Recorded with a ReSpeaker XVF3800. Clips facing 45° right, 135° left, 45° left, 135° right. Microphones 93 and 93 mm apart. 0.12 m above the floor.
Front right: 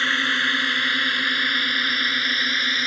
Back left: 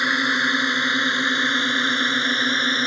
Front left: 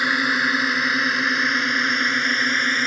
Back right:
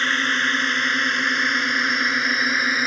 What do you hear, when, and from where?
0.0 s a drone: 105° left; by 2.9 s 145° left